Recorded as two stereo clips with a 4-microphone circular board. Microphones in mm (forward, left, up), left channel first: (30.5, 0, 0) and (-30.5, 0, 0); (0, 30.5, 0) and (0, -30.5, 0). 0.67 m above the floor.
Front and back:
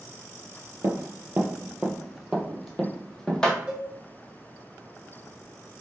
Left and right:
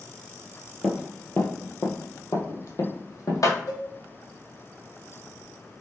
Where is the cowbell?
105° left, 1.8 m.